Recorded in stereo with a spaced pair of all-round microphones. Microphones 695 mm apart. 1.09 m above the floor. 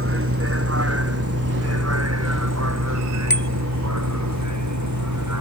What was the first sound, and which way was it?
A vehicle, 20° right (ahead or behind).